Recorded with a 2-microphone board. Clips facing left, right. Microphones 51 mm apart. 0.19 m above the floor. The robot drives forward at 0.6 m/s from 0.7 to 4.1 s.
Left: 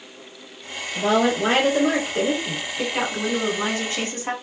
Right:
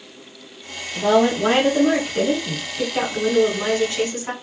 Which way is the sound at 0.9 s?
20° left (ahead or behind).